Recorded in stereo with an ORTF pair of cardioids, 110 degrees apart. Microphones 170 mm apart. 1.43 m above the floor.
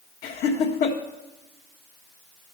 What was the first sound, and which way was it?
Laughter, 60° left.